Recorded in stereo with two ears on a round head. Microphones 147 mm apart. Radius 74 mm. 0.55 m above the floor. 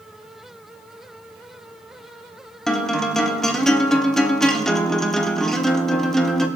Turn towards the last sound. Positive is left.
turn(degrees=5)  # may be behind; listen again after turning